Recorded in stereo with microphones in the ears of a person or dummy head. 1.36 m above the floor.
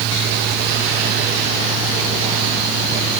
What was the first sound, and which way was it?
Only background noise.